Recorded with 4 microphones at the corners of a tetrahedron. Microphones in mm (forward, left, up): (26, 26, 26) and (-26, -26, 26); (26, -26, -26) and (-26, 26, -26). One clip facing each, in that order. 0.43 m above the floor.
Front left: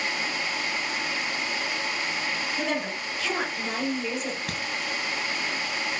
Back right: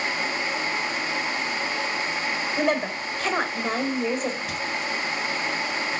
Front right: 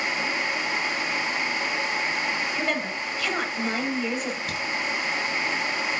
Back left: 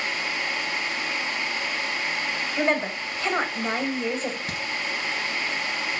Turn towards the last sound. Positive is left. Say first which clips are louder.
# back right 3 dB, front right 1 dB
turn(degrees=75)